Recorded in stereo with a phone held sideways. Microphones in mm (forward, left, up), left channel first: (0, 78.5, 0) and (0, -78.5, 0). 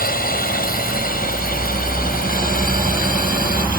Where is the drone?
65° left (ahead or behind).